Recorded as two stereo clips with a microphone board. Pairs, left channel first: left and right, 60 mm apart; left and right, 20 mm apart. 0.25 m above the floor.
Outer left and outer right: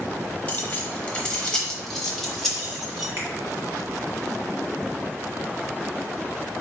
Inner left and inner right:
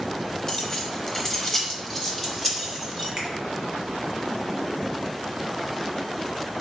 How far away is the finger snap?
About 1.6 m.